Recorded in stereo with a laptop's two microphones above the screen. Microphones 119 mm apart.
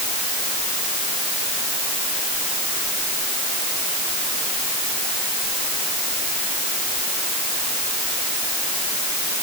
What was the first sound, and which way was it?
Only background noise.